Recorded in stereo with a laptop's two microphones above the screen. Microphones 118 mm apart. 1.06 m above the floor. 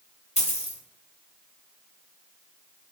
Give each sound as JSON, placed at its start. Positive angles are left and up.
{"t": 0.4, "sound": "a dropped coin", "side_deg": 70, "distance_m": 1.4}